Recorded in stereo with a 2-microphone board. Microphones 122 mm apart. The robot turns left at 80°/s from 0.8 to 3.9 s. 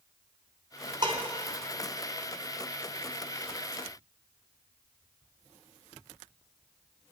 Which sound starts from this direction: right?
Dishes clattering, at 1.0 s.